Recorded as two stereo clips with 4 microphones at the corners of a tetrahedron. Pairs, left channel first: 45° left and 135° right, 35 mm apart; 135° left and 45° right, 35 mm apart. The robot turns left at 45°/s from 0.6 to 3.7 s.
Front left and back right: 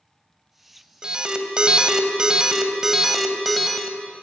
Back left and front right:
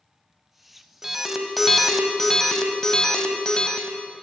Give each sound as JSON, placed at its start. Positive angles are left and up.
{"t": 1.0, "sound": "an alarm", "azimuth_deg": -110, "distance_m": 1.0}